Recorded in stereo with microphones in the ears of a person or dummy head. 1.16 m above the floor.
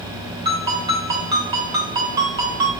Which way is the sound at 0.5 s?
30° right (ahead or behind).